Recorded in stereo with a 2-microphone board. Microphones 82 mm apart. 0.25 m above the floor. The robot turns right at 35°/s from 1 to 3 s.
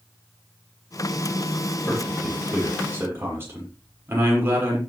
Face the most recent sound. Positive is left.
turn(degrees=-155)